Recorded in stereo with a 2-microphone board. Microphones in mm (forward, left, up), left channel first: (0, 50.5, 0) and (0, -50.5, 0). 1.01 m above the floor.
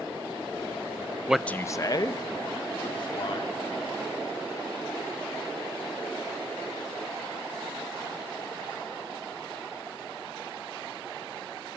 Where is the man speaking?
10° right (ahead or behind), 0.5 m; by 3.6 s 55° left (ahead or behind), 3 m.